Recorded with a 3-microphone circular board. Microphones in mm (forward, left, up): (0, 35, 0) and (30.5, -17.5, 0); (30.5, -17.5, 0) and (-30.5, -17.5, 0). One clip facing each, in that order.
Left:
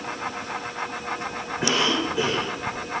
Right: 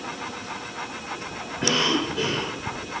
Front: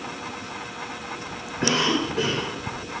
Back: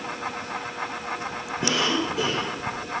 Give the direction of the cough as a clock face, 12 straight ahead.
11 o'clock.